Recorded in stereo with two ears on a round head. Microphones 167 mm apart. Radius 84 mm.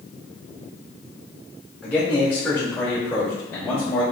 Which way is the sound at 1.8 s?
10° left (ahead or behind).